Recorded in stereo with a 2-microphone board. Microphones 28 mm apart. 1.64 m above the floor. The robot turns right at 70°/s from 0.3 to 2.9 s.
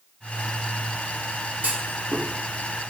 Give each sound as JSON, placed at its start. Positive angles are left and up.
{"t": 1.6, "sound": "a clunk", "side_deg": -75, "distance_m": 1.7}